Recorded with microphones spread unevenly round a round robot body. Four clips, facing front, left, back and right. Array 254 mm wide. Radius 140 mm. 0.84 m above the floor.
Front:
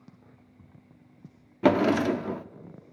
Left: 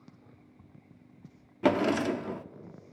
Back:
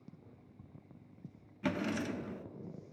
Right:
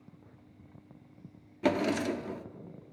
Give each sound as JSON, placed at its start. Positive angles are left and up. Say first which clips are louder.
{"t": 1.6, "sound": "a drawer", "louder": "left 3 dB, front 14 dB", "azimuth_deg": 15, "distance_m": 0.7}